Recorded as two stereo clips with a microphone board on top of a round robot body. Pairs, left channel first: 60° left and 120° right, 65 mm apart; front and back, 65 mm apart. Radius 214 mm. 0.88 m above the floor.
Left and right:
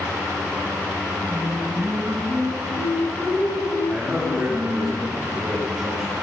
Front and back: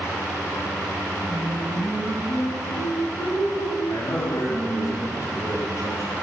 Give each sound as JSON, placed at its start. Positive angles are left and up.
{"t": 1.3, "sound": "singing", "azimuth_deg": -100, "distance_m": 5.5}
{"t": 3.9, "sound": "a man speaking", "azimuth_deg": -40, "distance_m": 5.5}